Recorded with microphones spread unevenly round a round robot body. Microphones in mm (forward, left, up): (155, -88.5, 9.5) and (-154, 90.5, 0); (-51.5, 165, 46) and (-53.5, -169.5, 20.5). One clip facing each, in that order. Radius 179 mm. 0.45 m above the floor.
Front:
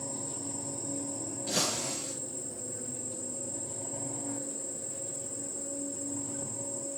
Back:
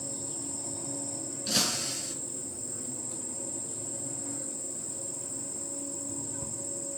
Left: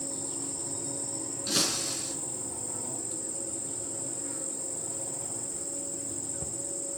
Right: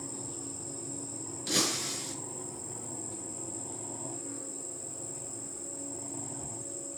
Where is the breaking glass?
175° left, 4 m.